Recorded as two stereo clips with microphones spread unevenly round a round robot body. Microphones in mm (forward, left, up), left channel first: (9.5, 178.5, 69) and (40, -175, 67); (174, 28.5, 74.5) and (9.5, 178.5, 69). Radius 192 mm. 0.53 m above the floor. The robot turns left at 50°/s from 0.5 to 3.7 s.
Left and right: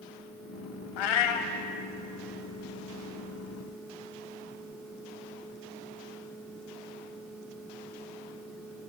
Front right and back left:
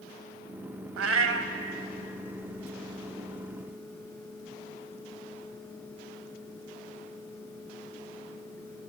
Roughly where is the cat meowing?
Behind left.